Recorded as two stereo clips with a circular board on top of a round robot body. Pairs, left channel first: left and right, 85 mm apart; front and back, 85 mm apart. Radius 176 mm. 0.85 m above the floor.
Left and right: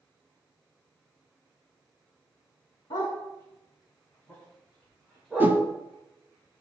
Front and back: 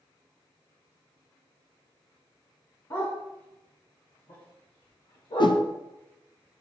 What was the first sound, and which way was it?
A dog barking, 55° left.